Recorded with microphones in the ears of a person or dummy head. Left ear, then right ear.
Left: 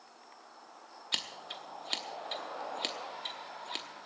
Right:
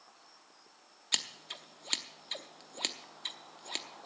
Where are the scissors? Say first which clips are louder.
Right 1 dB; 10° right (ahead or behind), 0.8 m.